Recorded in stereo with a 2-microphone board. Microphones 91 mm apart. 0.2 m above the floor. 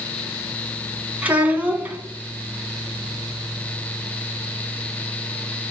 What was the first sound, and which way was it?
A child speaking, 15° right (ahead or behind).